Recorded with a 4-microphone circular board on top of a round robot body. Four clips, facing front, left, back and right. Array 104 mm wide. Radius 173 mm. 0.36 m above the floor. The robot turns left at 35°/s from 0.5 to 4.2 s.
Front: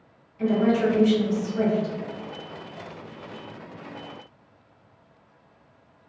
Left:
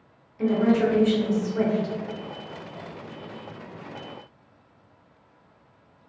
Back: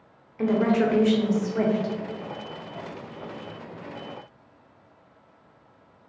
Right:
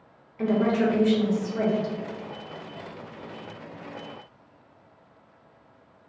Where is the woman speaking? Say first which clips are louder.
Left 2 dB, even; 155° right, 1.2 m; by 1.9 s 155° left, 1.2 m.